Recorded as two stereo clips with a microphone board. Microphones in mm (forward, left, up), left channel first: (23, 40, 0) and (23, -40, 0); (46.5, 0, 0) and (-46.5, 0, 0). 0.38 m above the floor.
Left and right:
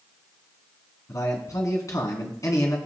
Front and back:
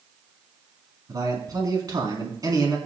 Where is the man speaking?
135° left, 3.5 m.